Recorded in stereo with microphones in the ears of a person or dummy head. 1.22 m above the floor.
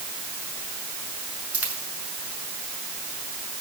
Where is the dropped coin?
10° right (ahead or behind), 6 m.